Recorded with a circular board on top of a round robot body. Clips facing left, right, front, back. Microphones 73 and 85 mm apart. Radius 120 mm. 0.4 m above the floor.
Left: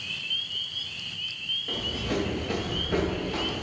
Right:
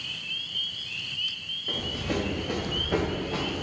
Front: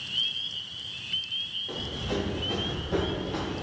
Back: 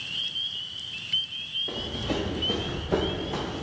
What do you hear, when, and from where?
1.7 s running footsteps: 175° right, 2.5 m; by 3.6 s 160° right, 1.8 m